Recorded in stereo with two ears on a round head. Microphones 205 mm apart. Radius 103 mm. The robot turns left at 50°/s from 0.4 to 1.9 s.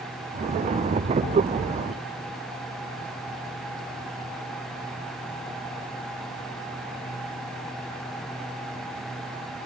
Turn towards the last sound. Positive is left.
No sound to turn to.